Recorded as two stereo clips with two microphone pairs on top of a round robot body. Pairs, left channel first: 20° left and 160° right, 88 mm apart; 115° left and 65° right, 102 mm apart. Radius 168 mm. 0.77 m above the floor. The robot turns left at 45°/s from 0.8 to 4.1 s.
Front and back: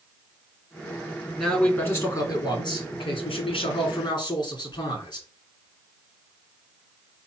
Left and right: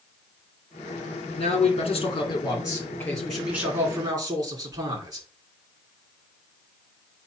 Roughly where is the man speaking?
Left.